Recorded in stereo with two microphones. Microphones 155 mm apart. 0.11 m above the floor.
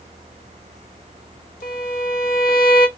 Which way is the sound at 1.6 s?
80° left.